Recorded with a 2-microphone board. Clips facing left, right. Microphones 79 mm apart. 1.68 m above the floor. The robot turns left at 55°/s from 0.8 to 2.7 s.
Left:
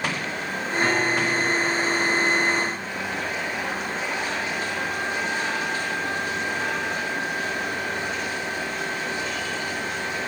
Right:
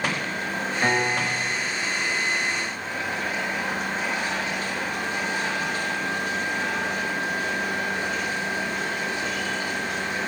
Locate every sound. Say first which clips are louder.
0.8 s a piano: left 1 dB; 155° right, 6 m; by 1.5 s 170° left, 6 m